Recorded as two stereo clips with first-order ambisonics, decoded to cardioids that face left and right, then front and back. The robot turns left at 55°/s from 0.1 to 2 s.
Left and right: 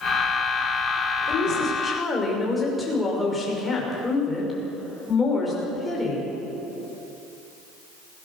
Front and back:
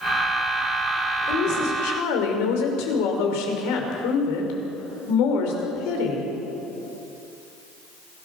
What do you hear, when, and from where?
1.3 s a woman speaking: 45° left, 5.5 m; by 6.2 s 5° left, 5.5 m